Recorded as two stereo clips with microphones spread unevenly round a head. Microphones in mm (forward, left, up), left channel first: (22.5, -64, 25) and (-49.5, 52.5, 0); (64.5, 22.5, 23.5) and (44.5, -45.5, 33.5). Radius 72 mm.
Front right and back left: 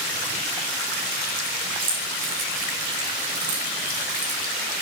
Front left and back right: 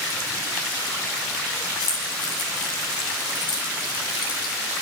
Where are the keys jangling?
70° left, 8.5 m; by 4.5 s 90° left, 6 m.